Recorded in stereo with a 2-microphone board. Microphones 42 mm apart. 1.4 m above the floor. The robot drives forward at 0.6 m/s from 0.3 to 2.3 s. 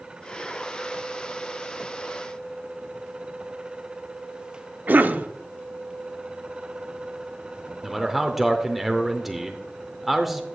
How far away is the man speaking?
About 0.6 m.